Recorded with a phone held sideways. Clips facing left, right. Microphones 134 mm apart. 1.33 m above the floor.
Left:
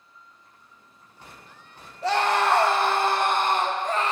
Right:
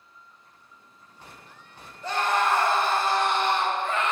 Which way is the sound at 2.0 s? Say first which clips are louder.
Left 3 dB; 80° left.